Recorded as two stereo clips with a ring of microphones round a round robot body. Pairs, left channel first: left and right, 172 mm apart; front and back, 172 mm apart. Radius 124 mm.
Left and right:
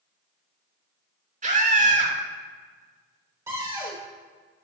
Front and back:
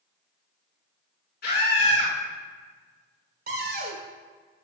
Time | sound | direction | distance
1.4 | a scream | 50° right | 5 m
3.5 | a cupboard door | 165° right | 2.5 m